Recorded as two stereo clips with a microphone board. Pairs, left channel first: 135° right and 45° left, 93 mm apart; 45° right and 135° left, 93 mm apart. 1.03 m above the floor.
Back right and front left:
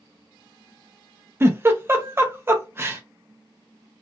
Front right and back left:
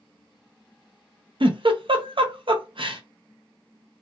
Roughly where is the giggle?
Left.